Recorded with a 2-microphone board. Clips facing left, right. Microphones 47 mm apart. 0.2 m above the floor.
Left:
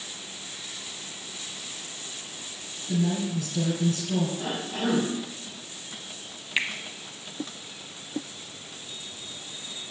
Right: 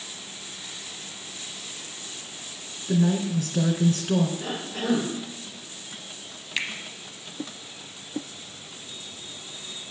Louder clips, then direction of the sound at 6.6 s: Left 2 dB; 20° left (ahead or behind).